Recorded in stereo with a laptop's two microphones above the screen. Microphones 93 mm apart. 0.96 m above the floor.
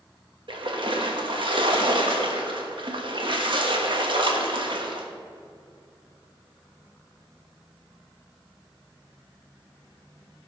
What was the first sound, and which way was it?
A splash, 65° right (ahead or behind).